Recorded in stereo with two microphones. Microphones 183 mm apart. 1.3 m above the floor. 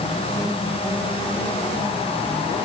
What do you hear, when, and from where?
Only background noise.